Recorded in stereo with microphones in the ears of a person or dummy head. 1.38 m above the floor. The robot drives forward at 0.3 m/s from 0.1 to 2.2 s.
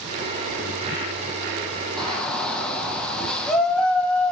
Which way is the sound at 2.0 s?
Centre (ahead or behind).